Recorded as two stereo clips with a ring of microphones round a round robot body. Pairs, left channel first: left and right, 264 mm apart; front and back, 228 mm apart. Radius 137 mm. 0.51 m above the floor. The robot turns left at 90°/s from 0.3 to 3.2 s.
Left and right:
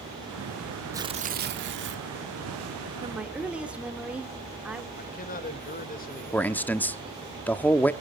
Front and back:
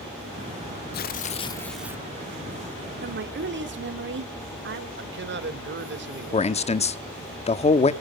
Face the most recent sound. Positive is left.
turn(degrees=15)